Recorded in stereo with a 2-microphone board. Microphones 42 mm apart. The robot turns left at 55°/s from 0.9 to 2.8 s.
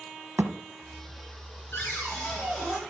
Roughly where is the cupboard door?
Left.